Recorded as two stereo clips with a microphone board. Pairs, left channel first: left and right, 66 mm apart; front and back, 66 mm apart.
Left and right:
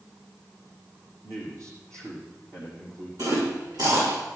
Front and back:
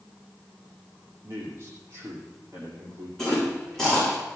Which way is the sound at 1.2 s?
130° right.